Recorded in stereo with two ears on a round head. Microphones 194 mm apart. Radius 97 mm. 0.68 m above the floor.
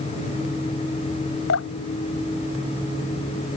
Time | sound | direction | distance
1.5 | dripping | 65° left (ahead or behind) | ?